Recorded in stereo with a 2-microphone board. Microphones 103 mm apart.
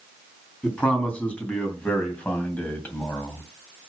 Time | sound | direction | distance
0.6 | a man speaking | 10° left (ahead or behind) | 3.5 m